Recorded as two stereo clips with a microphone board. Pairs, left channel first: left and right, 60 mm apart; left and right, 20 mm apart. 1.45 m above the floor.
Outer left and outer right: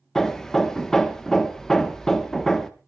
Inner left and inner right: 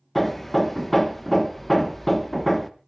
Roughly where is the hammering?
Centre.